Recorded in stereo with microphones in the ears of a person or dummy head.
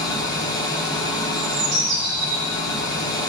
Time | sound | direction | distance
0.0 | an engine running | 20° left (ahead or behind) | 1.1 m
1.3 | a bird | 55° right (ahead or behind) | 3 m